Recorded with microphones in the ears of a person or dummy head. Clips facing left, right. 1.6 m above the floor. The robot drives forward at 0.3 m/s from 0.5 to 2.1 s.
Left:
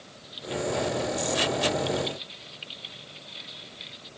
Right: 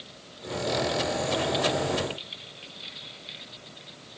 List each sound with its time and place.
Only background noise.